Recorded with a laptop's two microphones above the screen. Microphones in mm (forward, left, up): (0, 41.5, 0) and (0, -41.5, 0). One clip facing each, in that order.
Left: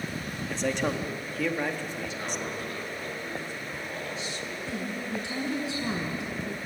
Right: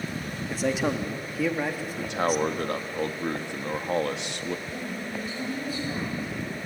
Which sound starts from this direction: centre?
A man speaking, at 0.5 s.